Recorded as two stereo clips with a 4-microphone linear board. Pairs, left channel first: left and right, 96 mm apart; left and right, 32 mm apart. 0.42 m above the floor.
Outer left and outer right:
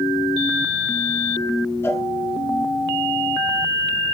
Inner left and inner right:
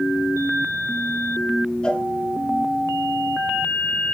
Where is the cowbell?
25° left (ahead or behind), 1.4 m.